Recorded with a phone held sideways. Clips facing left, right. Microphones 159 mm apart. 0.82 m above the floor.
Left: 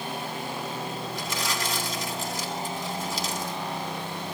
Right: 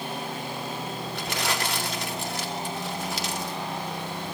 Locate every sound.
1.1 s crumpling: 70° right (ahead or behind), 2 m